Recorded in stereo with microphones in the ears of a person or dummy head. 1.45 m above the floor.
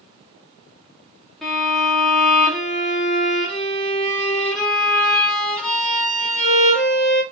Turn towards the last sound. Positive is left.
turn(degrees=5)  # may be behind; listen again after turning